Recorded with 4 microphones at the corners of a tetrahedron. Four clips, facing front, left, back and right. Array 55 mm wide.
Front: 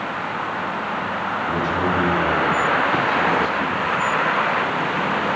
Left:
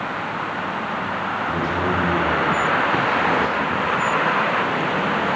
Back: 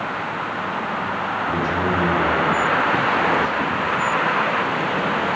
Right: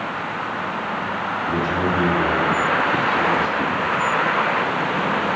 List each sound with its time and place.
1.5 s a man speaking: 95° right, 4 m; by 3.9 s 105° right, 5.5 m